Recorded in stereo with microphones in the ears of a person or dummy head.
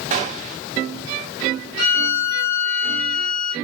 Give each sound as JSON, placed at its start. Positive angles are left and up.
{"t": 0.1, "sound": "a gunshot", "side_deg": -30, "distance_m": 1.1}
{"t": 1.8, "sound": "a violin", "side_deg": 40, "distance_m": 2.5}